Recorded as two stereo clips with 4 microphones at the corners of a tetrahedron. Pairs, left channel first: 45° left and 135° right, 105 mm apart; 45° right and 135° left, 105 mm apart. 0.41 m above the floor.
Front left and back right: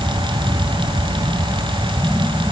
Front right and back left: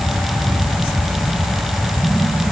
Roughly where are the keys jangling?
I don't hear keys jangling.